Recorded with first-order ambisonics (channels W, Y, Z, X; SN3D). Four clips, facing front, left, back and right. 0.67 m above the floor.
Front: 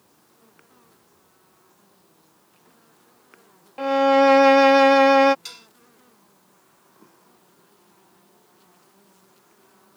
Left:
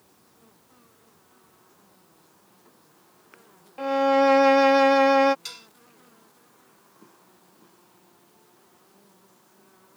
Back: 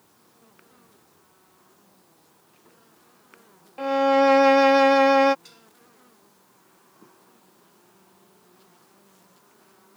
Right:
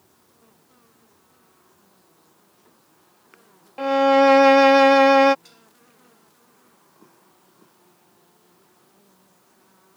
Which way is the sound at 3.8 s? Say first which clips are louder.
Right 4 dB, front 2 dB; 60° right.